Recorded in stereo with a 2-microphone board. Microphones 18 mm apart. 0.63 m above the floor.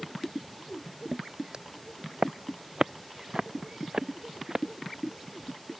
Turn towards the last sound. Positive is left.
turn(degrees=-25)  # may be behind; listen again after turning